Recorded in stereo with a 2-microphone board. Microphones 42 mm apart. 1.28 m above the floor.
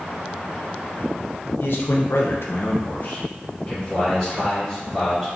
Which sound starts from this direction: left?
A man speaking, at 1.6 s.